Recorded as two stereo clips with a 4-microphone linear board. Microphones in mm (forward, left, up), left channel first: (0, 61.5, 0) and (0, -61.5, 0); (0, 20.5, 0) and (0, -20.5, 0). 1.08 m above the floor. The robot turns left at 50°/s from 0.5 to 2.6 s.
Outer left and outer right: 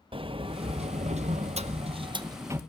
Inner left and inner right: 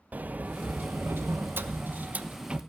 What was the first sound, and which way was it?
A sliding door, 50° right.